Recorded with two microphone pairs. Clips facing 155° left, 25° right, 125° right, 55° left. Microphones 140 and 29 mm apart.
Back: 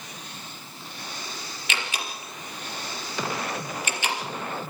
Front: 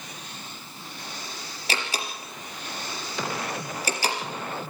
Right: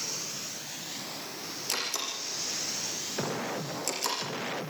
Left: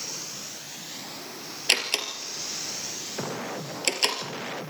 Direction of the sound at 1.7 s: 30° left.